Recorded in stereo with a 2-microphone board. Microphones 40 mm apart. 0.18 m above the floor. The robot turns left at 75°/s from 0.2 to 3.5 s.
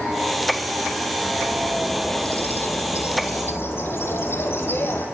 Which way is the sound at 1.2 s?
130° right.